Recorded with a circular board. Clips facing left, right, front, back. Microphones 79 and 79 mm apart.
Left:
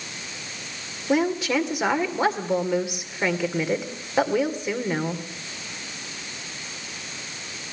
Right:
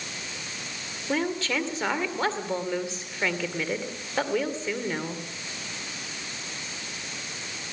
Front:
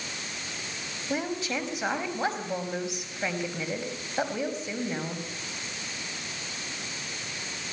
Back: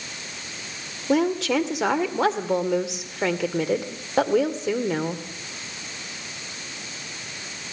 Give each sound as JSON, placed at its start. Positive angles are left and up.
{"t": 1.1, "sound": "a woman speaking", "azimuth_deg": 165, "distance_m": 2.5}